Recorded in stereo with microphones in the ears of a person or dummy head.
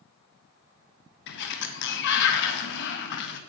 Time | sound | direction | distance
1.3 | a sliding door | 65° left (ahead or behind) | 1.1 m